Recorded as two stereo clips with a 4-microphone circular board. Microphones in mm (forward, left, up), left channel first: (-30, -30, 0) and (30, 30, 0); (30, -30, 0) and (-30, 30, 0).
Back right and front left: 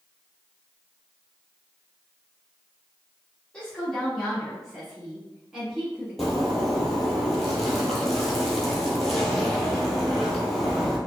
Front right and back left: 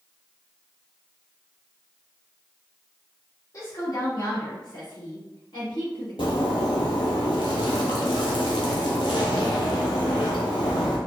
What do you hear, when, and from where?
3.5 s a woman speaking: 60° right, 1.4 m; by 7.2 s 35° right, 3 m
6.2 s a zipper: 50° right, 1.3 m